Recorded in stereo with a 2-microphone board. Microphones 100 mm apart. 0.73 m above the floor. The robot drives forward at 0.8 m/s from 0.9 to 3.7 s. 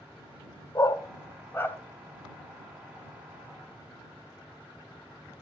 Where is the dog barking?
40° left (ahead or behind), 0.7 m; by 1.8 s 20° left (ahead or behind), 1.3 m.